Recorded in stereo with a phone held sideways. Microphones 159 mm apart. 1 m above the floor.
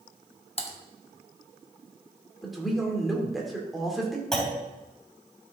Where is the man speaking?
Centre (ahead or behind), 2.5 m.